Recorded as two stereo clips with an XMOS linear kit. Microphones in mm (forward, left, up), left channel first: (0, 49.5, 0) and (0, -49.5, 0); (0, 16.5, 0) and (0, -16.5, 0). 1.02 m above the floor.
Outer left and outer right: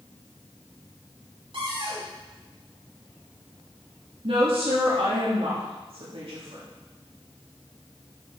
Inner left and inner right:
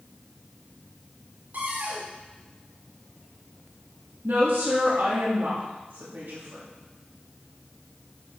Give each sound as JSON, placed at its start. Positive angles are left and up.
{"t": 1.5, "sound": "a cupboard door", "side_deg": -60, "distance_m": 2.0}
{"t": 4.2, "sound": "a woman speaking", "side_deg": -75, "distance_m": 1.9}